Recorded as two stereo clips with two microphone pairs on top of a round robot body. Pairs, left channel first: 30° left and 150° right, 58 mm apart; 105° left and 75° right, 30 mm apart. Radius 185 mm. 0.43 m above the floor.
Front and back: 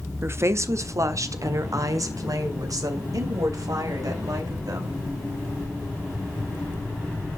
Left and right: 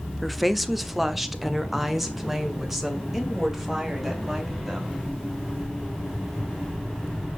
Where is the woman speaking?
175° right, 0.9 m; by 5.0 s 160° right, 3.5 m.